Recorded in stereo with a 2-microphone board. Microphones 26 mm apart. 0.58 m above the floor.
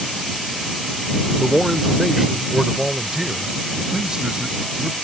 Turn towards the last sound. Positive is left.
turn(degrees=-30)  # may be behind; listen again after turning